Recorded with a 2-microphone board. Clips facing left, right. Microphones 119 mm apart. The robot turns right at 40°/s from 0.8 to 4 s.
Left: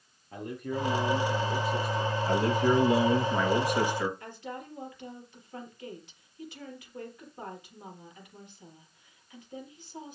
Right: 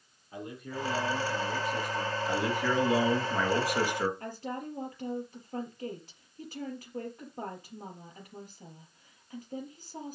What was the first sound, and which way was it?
A man speaking, 110° left.